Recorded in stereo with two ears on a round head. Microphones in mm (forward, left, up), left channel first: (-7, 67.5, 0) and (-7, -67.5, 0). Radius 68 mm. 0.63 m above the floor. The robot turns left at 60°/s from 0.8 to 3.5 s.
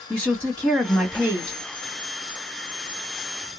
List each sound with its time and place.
0.1 s a woman speaking: 10° left, 1.8 m; by 1.6 s 35° right, 1.8 m